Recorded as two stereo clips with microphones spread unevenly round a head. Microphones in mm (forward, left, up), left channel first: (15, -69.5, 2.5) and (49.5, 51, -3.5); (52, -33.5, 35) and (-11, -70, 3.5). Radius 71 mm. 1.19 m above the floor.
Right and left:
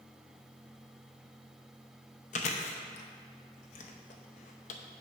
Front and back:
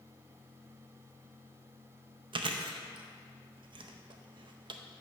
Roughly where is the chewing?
Behind right.